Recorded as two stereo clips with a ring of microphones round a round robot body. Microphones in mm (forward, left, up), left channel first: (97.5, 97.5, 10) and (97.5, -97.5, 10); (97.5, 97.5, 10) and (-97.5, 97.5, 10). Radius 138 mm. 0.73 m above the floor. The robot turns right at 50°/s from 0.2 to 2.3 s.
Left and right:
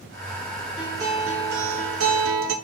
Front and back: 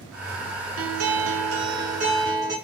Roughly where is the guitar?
Behind.